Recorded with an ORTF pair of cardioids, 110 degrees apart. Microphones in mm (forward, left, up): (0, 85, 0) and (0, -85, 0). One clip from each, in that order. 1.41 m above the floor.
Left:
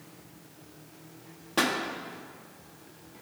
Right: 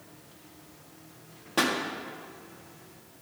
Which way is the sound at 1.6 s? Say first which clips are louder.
Even; 5° left.